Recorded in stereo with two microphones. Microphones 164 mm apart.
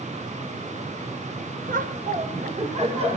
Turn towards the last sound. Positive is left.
turn(degrees=-40)  # may be behind; listen again after turning